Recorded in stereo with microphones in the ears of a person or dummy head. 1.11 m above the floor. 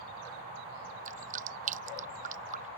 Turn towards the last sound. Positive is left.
turn(degrees=-50)  # may be behind; listen again after turning